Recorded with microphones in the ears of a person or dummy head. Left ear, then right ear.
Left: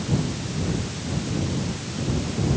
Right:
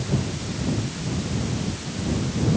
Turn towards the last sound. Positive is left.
No sound to turn to.